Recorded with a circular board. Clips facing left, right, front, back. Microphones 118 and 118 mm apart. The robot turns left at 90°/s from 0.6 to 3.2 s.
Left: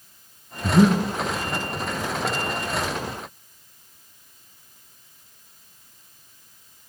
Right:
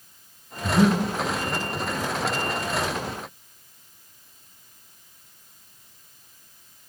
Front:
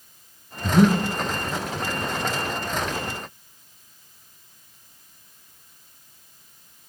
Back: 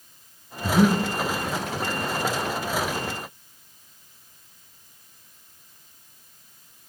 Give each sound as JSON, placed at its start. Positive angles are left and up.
{"t": 0.6, "sound": "breathing", "azimuth_deg": 85, "distance_m": 0.9}